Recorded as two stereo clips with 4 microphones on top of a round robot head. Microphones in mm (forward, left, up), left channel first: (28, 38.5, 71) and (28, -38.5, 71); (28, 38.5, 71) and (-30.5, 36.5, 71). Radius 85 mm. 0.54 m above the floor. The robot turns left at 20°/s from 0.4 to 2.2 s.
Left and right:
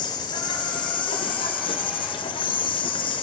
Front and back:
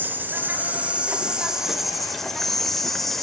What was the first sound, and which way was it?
An insect, 125° left.